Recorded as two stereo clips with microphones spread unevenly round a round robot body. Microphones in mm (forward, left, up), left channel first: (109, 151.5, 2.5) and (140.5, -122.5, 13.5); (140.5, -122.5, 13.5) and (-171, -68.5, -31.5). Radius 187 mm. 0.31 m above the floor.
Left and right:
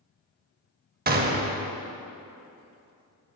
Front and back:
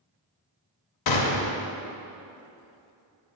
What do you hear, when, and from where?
1.1 s a gunshot: 25° right, 0.7 m